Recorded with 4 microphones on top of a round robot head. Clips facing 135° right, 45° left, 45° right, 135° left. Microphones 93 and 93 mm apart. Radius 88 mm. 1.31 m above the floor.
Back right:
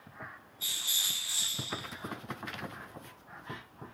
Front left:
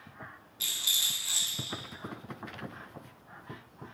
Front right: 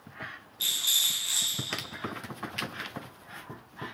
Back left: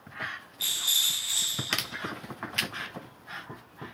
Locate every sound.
0.6 s a rattle: 25° left, 0.7 m